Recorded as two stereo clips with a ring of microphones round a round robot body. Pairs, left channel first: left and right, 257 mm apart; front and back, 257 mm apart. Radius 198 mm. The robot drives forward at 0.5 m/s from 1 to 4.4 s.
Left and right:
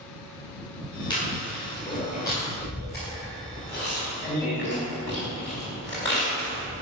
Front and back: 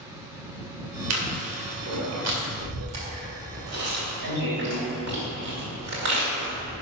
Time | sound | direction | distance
1.1 | chewing | 165° left | 2 m